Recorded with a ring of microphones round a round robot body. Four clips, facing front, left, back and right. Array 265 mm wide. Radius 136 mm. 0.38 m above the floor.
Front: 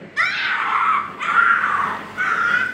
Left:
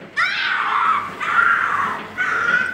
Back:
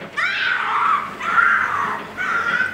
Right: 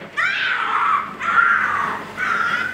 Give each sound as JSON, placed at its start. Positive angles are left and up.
{"t": 0.2, "sound": "a scream", "azimuth_deg": 45, "distance_m": 4.0}